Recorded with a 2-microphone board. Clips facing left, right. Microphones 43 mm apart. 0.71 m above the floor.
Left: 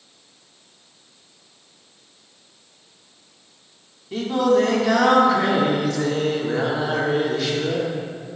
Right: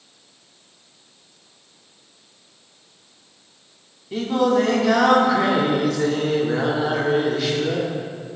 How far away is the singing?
About 1.5 m.